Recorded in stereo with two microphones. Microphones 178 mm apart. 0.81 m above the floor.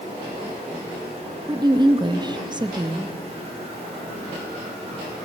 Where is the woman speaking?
25° right (ahead or behind), 0.6 m.